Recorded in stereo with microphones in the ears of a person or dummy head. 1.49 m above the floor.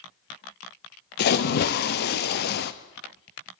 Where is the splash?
50° left (ahead or behind), 0.6 m.